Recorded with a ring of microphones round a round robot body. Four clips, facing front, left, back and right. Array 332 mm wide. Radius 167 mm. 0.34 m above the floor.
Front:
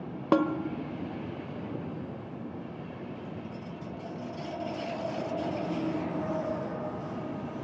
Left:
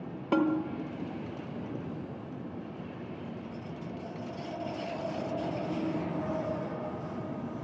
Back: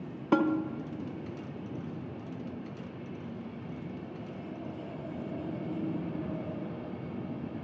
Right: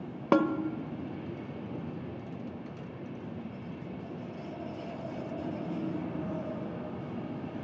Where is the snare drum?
50° right, 1.3 m.